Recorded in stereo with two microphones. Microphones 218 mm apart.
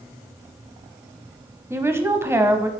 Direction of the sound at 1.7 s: 10° right (ahead or behind).